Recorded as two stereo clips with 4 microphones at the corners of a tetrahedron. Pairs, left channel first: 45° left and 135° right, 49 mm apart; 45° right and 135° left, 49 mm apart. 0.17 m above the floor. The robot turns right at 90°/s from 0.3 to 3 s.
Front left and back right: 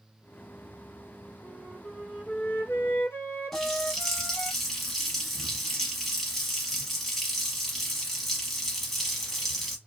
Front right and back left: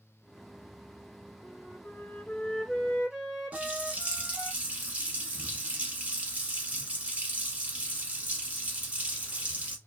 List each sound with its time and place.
1.4 s a flute: 90° right, 0.7 m; by 4.5 s 50° left, 0.7 m
3.5 s a running tap: 130° left, 0.8 m